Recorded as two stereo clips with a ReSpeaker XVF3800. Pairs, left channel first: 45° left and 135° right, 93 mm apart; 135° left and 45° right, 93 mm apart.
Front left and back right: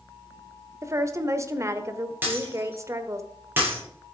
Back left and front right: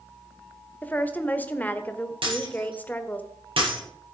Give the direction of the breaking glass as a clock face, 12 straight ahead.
2 o'clock.